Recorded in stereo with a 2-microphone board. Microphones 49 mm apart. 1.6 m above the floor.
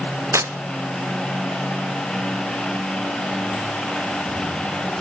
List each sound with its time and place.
0.3 s tearing paper: 80° right, 0.6 m